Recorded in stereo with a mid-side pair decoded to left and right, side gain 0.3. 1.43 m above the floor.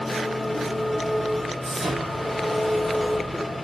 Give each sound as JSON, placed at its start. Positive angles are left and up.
{"t": 0.0, "sound": "an engine running", "azimuth_deg": 10, "distance_m": 3.0}
{"t": 1.6, "sound": "an explosion", "azimuth_deg": -70, "distance_m": 6.5}